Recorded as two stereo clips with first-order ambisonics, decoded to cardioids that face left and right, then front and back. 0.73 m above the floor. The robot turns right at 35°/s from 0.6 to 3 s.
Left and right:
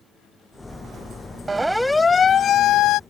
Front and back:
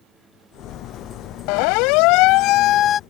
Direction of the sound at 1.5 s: 10° right.